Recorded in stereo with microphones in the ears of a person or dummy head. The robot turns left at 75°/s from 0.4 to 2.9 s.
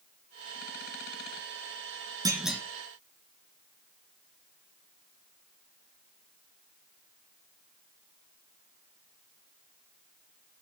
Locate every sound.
2.2 s a clunk: 15° right (ahead or behind), 1.8 m; by 2.6 s 10° left (ahead or behind), 1.8 m